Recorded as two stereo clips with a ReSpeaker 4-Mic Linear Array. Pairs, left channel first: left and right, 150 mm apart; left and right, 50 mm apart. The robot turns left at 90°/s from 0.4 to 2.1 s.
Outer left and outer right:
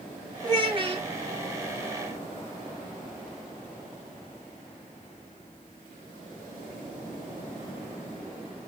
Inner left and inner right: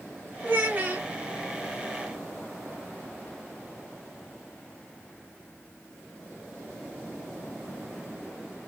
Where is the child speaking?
50° right, 0.9 m; by 1.1 s 110° right, 0.9 m.